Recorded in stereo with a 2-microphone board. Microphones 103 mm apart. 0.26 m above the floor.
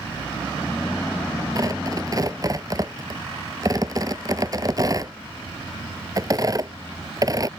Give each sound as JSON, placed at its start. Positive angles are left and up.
{"t": 1.6, "sound": "tearing paper", "side_deg": -35}